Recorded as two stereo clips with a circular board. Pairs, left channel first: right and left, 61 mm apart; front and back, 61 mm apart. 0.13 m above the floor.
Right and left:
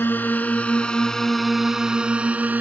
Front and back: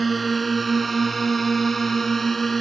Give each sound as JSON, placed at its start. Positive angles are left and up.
{"t": 0.0, "sound": "a drone", "azimuth_deg": -90}